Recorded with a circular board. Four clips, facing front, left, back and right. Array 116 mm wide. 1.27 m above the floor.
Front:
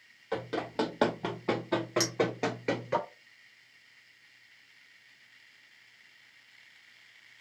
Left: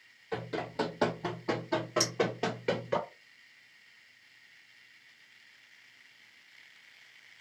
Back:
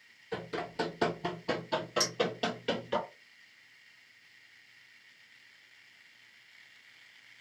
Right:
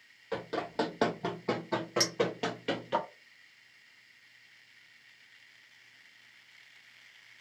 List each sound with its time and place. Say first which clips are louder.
0.3 s running footsteps: right 1 dB, front 4 dB; 30° right, 2 m; by 3.0 s 45° left, 1.4 m
2.0 s a clink: even, front 2 dB; 60° right, 1.3 m